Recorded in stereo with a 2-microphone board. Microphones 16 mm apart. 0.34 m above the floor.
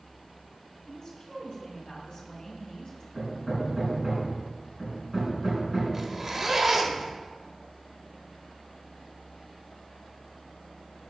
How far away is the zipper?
About 1.1 m.